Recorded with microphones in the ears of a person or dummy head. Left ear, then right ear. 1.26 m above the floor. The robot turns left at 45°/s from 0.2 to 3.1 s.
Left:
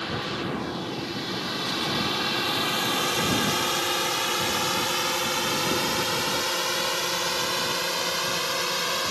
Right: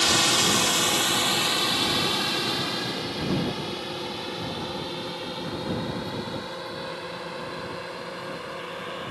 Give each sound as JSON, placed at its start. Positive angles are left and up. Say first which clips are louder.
{"t": 0.0, "sound": "a drone", "louder": "right 9 dB", "side_deg": -80}